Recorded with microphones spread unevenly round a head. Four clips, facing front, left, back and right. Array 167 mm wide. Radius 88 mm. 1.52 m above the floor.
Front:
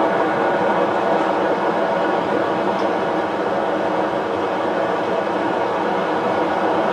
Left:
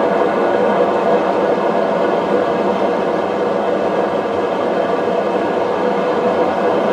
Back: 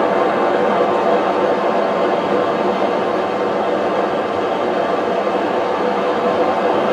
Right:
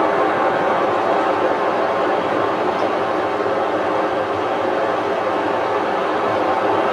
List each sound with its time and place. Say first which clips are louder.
0.0 s running water: left 2 dB, back 2 dB; 110° left, 2 m